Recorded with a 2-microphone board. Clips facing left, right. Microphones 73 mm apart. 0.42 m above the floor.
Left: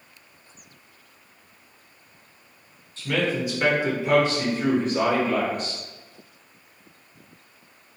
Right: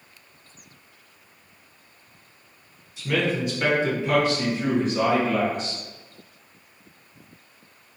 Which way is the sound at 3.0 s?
10° right (ahead or behind).